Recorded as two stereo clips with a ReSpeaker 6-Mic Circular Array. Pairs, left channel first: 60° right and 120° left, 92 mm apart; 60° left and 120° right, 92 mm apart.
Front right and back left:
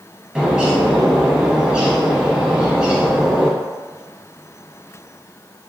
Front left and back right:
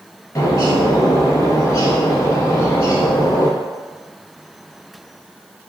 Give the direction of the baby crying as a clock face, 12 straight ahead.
No baby crying in this recording.